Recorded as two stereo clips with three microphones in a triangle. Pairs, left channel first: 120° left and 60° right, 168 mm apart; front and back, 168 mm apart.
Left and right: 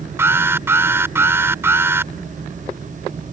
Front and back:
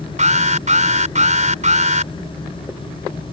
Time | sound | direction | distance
0.2 | an alarm | 135° right | ?